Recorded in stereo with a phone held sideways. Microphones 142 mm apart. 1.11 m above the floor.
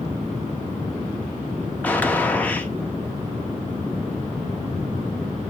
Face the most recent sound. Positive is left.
turn(degrees=10)  # may be behind; listen again after turning